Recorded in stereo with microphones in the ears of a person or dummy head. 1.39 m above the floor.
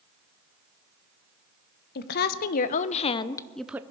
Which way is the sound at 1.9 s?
55° left (ahead or behind).